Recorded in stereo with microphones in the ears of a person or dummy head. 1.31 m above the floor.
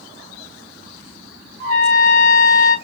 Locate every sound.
1.6 s a trumpet: 70° right (ahead or behind), 1.4 m